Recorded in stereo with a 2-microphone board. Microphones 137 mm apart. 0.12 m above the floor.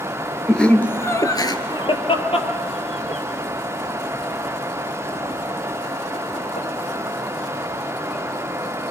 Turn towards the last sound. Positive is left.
turn(degrees=70)  # may be behind; listen again after turning